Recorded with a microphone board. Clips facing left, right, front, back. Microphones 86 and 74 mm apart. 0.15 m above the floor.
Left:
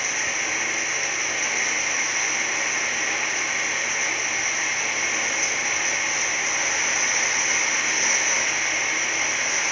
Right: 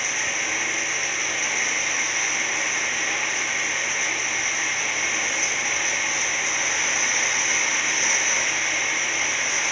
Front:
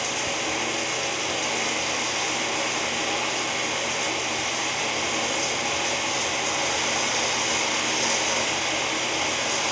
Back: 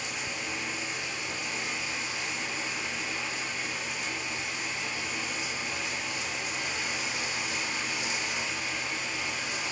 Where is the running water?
Straight ahead, 0.8 m.